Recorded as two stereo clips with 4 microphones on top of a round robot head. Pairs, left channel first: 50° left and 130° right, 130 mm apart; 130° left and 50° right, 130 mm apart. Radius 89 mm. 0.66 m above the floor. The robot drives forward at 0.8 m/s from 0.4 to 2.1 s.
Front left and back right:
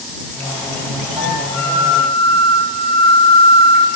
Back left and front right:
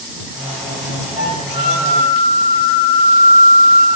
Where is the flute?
120° left, 2 m; by 3.9 s 135° left, 2.5 m.